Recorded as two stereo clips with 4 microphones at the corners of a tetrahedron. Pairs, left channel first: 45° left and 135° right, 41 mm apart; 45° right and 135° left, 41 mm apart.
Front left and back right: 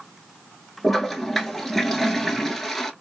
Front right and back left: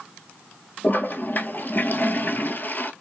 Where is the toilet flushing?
40° right, 0.8 m.